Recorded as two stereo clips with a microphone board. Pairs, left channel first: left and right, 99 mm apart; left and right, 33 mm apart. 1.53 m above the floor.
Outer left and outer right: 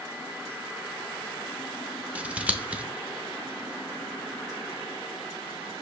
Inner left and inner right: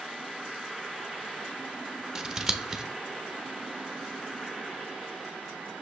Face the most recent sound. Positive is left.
turn(degrees=-15)  # may be behind; listen again after turning